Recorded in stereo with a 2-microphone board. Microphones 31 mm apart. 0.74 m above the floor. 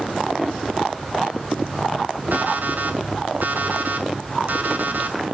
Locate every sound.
2.3 s an alarm clock: 70° right (ahead or behind), 2.5 m